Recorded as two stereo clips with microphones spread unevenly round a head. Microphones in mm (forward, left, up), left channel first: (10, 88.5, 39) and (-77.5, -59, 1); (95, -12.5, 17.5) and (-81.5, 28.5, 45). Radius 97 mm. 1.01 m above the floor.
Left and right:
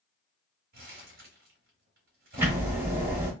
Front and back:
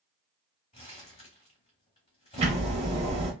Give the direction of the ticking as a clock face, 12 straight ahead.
5 o'clock.